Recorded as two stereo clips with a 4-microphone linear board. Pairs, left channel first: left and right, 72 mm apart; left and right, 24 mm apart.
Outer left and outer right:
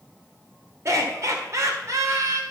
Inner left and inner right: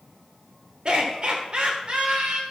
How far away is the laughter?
About 1.5 m.